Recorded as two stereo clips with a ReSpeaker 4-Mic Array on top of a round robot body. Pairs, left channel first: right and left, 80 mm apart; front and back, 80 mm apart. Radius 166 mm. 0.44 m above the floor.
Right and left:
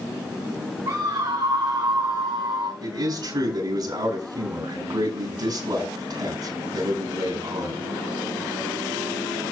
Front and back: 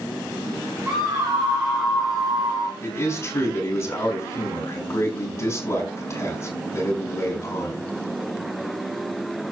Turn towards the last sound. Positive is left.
turn(degrees=55)